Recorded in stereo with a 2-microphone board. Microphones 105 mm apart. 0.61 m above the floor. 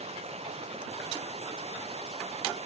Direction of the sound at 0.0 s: 80° right.